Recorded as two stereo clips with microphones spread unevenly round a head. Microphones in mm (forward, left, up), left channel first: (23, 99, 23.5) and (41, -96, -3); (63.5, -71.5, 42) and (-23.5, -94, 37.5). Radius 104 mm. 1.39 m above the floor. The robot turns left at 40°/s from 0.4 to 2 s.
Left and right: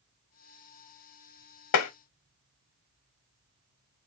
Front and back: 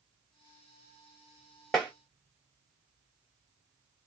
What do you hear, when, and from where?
1.7 s tapping: 105° left, 0.6 m; by 1.9 s 95° left, 0.6 m